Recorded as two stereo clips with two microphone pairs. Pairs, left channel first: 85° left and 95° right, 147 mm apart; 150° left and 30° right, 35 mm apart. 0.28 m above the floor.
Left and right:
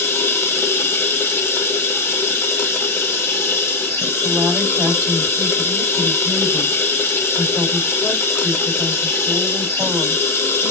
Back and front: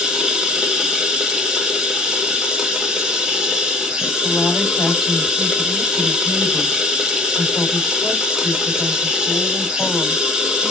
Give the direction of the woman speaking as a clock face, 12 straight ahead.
6 o'clock.